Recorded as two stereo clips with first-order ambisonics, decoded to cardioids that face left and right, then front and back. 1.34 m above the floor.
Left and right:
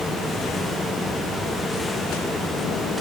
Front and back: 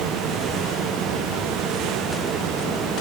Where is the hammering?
I don't hear hammering.